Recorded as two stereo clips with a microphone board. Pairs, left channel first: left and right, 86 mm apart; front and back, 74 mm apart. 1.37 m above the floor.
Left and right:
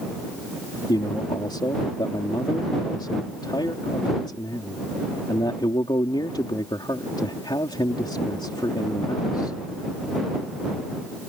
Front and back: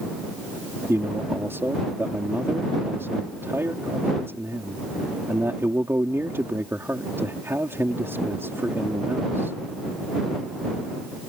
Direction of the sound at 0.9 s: 120° left.